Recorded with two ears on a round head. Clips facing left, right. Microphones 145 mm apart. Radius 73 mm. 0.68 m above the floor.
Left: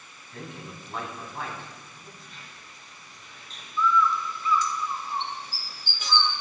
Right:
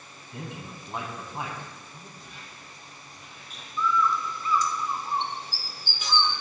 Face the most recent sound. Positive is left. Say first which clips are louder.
# left 2 dB
turn(degrees=-35)  # may be behind; listen again after turning